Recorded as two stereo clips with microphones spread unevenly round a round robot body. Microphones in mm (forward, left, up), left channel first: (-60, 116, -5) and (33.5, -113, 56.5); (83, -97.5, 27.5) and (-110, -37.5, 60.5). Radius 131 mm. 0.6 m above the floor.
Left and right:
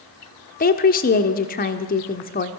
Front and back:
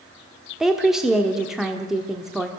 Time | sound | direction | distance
0.6 | a woman speaking | 70° left | 1.1 m